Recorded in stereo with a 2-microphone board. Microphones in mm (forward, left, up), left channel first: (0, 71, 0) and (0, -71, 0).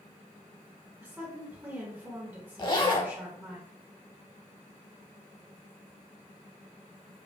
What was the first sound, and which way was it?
A woman speaking, 15° right (ahead or behind).